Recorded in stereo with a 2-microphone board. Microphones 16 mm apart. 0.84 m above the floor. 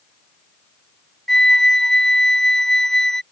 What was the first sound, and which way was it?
A flute, 30° left (ahead or behind).